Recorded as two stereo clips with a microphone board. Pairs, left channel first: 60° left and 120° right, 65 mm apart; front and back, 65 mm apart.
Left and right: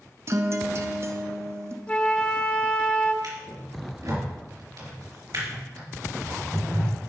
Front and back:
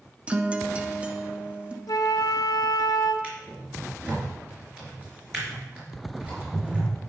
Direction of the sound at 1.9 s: 10° right.